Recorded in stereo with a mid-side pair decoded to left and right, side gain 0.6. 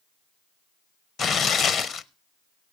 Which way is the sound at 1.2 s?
40° left.